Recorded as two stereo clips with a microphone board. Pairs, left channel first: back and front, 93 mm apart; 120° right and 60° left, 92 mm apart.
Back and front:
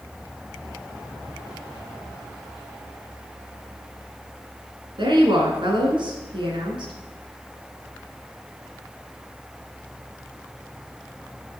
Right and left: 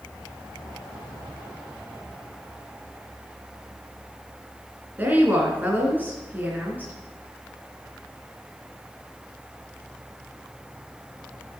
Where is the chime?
No chime in this recording.